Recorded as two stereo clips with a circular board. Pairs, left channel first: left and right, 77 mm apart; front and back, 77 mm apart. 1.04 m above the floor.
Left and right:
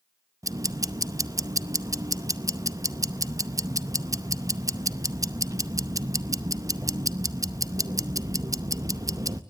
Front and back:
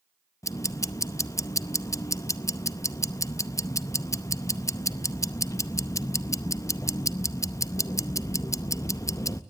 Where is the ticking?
45° right, 0.7 m.